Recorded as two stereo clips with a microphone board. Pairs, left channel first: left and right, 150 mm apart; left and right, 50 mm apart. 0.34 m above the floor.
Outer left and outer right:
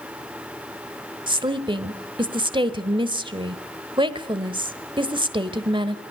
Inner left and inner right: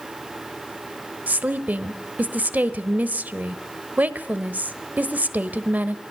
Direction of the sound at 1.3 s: 35° right (ahead or behind).